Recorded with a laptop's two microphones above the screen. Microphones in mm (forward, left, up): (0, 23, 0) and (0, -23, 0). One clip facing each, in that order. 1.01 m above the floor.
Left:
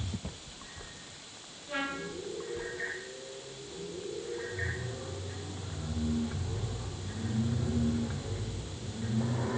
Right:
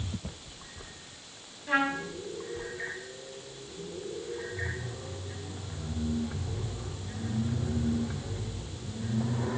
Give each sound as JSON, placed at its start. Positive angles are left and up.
{"t": 1.7, "sound": "a trumpet", "side_deg": -80, "distance_m": 3.5}